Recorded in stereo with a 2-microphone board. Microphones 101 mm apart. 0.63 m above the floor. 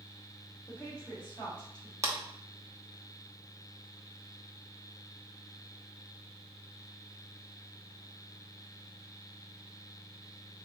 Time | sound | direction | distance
0.7 | a woman speaking | 10° left (ahead or behind) | 2.0 m
2.0 | a clap | 30° right (ahead or behind) | 0.8 m